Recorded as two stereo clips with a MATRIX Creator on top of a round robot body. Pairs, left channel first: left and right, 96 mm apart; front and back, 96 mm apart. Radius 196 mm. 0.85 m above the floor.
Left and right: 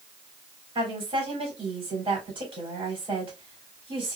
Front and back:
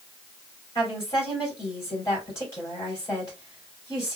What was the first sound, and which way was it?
A woman speaking, 55° right.